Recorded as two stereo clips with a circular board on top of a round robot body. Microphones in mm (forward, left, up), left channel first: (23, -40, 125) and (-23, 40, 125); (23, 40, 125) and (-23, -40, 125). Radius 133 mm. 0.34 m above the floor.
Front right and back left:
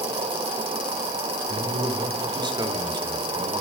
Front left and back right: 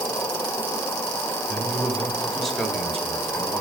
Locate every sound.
0.0 s an insect: 120° left, 0.7 m
1.5 s a man speaking: 150° left, 1.8 m